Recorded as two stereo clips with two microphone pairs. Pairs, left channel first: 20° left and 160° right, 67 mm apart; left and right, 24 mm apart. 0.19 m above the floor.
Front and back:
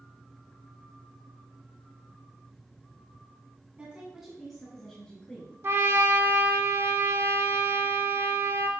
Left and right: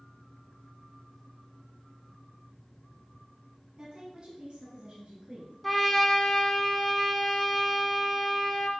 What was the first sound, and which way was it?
A woman speaking, 100° right.